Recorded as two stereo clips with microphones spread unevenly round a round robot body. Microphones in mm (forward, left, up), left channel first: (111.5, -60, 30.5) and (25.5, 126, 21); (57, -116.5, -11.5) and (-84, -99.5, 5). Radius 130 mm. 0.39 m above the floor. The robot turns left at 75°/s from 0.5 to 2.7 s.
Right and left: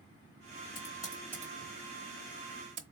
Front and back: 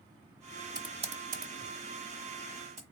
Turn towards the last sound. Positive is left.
turn(degrees=95)